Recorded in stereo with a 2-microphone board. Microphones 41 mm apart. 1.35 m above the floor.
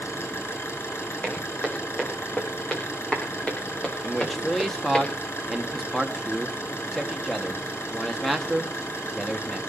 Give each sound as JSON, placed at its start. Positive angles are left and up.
{"t": 0.0, "sound": "an engine running", "side_deg": 80, "distance_m": 6.5}
{"t": 1.2, "sound": "footsteps", "side_deg": 20, "distance_m": 6.0}
{"t": 4.0, "sound": "a man speaking", "side_deg": 5, "distance_m": 2.5}